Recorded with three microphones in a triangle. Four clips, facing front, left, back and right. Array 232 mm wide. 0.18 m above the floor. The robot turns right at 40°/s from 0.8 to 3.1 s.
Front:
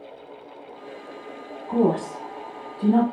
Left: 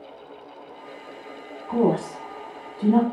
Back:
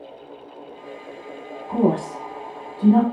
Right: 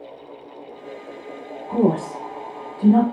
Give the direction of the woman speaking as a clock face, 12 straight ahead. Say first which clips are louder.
Right 2 dB, back 1 dB; 10 o'clock.